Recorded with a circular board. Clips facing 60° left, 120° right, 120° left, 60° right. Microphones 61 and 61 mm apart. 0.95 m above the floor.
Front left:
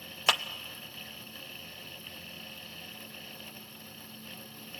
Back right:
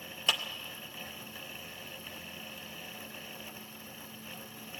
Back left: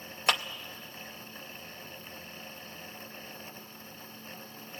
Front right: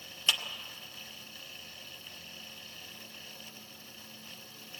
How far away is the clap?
About 0.7 m.